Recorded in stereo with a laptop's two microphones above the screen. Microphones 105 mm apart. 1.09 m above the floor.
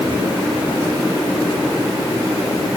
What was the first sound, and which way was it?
Only background noise.